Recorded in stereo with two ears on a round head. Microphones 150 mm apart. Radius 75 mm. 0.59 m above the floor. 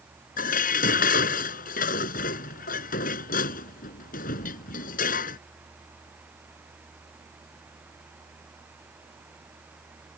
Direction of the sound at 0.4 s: 55° left (ahead or behind).